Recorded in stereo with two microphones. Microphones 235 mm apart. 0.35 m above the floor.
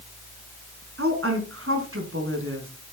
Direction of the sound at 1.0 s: 70° right (ahead or behind).